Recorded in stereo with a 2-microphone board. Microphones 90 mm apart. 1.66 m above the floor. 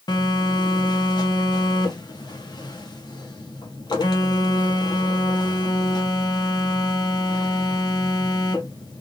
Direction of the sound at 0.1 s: 50° left (ahead or behind).